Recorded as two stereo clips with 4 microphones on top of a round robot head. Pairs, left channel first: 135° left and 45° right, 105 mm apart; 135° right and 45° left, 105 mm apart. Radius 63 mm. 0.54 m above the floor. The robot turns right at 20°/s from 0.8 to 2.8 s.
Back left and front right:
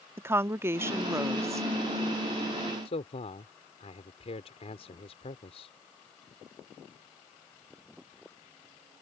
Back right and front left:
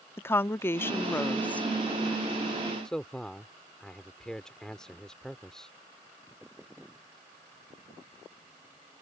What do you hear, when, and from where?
0.2 s a woman speaking: 90° right; by 1.7 s 70° right
2.9 s a man speaking: 140° left